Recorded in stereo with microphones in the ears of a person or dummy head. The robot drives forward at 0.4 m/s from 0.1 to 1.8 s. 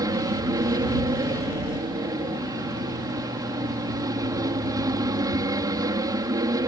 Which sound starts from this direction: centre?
An aircraft, at 0.0 s.